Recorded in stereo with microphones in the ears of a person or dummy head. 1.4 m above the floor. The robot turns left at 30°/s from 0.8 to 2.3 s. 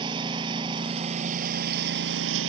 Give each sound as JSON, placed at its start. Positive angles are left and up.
{"t": 0.0, "sound": "a lawn mower", "azimuth_deg": -30}